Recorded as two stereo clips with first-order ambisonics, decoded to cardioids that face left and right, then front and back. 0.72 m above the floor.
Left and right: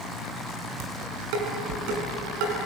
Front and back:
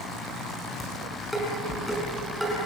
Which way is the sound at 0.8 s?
90° right.